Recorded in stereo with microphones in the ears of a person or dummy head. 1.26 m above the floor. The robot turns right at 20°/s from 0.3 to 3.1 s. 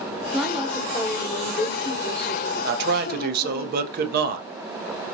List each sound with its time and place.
0.3 s a woman speaking: 5° left, 0.9 m; by 3.6 s 60° left, 0.9 m
2.6 s a man speaking: 55° right (ahead or behind), 0.7 m; by 4.5 s 45° right (ahead or behind), 0.7 m